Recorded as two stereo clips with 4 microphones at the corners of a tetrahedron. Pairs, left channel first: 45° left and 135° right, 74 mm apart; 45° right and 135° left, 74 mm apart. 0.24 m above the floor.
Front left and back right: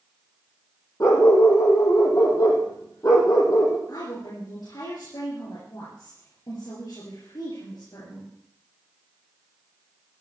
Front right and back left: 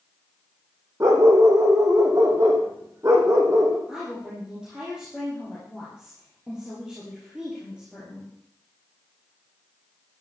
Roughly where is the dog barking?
Left.